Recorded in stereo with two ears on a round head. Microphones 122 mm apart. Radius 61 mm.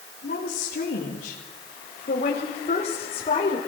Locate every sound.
0.2 s a woman speaking: 80° left, 4.5 m; by 3.6 s 40° left (ahead or behind), 4.5 m